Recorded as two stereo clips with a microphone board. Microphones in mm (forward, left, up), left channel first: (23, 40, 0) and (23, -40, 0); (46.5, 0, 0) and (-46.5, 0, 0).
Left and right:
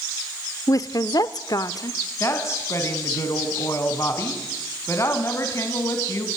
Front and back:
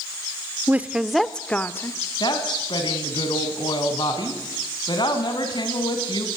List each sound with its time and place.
0.7 s a woman speaking: 115° left, 1.0 m; by 2.0 s 55° left, 1.2 m
2.2 s a woman speaking: 35° left, 4 m